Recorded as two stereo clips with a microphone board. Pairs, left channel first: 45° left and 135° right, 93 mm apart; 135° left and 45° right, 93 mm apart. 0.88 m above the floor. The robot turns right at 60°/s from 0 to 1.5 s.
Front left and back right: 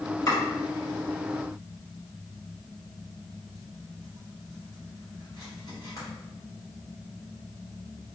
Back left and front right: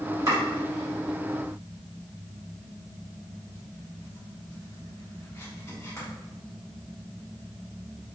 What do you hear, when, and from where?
0.3 s chopping: 5° left, 1.5 m; by 6.1 s 80° left, 1.5 m